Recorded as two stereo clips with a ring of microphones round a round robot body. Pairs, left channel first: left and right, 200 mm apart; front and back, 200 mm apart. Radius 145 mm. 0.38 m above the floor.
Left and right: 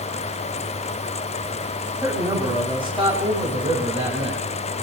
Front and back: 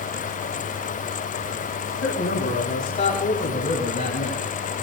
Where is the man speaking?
20° right, 3 m; by 4.4 s 35° right, 4.5 m.